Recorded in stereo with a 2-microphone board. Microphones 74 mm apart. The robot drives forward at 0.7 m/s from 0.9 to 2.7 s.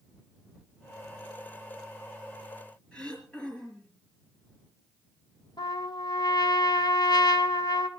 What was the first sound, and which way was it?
Throat clearing, 15° left (ahead or behind).